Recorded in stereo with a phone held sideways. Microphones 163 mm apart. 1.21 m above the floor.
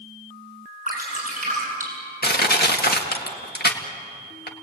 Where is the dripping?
55° right (ahead or behind), 8.5 m.